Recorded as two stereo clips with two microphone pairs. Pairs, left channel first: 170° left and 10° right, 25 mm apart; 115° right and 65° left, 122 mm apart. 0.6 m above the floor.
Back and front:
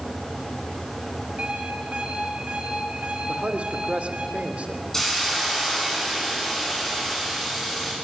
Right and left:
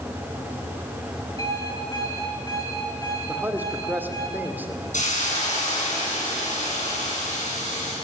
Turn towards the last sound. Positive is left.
turn(degrees=-115)